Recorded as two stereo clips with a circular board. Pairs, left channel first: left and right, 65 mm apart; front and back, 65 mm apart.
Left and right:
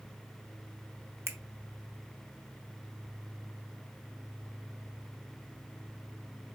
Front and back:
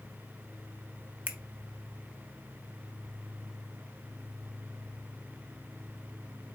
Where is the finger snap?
120° right, 0.7 m.